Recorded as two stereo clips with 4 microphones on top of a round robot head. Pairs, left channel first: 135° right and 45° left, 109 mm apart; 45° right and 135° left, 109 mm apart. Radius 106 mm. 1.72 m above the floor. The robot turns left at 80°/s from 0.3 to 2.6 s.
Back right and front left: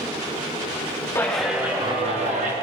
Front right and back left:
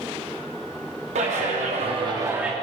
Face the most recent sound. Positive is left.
turn(degrees=45)